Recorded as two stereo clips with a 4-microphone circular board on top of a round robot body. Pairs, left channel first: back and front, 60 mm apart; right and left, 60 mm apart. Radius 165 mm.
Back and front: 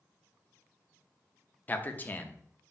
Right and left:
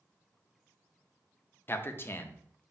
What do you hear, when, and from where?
1.7 s a man speaking: 130° right, 0.8 m